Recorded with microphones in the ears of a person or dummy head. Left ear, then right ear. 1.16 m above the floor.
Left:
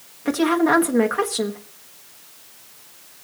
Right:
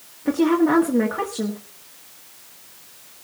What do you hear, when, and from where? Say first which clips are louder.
0.2 s a woman speaking: even; 55° left (ahead or behind), 1.4 m